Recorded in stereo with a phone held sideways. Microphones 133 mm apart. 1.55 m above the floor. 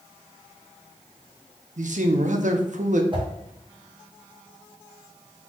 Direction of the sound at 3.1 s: 35° right (ahead or behind).